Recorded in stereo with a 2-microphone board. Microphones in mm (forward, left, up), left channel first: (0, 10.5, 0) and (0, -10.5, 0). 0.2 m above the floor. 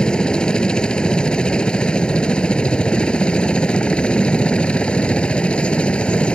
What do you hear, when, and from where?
0.0 s a helicopter: 45° left (ahead or behind); by 6.4 s 60° left (ahead or behind)